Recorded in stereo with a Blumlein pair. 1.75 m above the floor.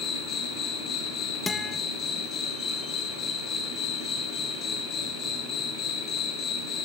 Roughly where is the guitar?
Ahead.